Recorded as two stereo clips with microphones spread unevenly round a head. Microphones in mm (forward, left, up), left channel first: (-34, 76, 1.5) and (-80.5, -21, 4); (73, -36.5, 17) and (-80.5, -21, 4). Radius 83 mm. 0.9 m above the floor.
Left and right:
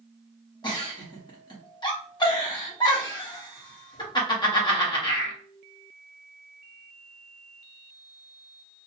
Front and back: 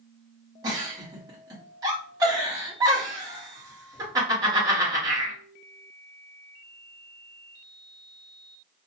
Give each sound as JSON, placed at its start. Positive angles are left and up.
{"t": 0.6, "sound": "a giggle", "azimuth_deg": 110, "distance_m": 1.1}